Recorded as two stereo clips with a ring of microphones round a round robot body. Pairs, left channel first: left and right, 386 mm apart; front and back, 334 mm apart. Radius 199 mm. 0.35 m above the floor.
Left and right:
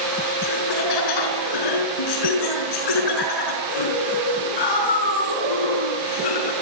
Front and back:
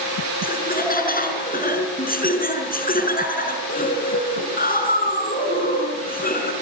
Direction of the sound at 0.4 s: 65° left.